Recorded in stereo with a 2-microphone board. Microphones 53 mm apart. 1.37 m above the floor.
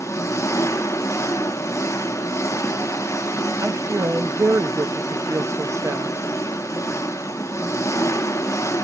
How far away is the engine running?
About 0.8 m.